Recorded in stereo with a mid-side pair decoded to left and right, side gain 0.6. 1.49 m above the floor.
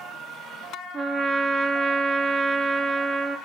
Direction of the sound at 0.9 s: 40° right.